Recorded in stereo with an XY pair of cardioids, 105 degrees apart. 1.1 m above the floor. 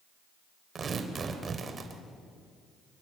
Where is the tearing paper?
40° right, 3.5 m.